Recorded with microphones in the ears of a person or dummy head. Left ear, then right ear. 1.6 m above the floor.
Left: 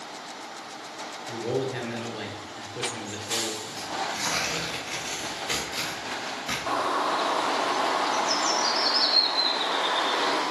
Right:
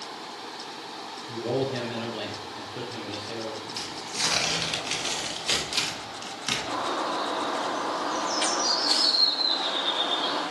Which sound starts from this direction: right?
Tearing paper, at 3.8 s.